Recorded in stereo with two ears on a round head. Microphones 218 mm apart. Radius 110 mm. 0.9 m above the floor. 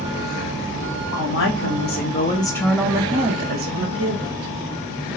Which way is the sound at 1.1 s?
60° left (ahead or behind).